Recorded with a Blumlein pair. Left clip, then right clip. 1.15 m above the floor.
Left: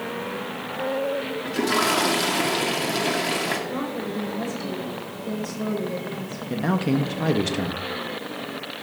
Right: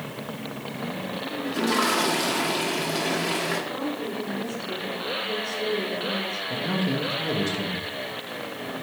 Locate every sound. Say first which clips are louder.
1.4 s a toilet flushing: left 1 dB; 15° left, 1.9 m
3.7 s a woman speaking: left 1 dB; 70° left, 4.5 m
6.5 s a man speaking: left 6 dB; 70° left, 1.2 m